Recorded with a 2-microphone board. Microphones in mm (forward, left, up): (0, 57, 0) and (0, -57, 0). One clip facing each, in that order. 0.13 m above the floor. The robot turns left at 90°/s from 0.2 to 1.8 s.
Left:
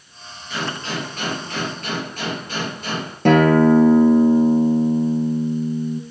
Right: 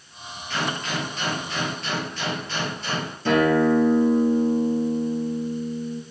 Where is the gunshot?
175° left, 3 m; by 3.1 s 55° left, 3 m.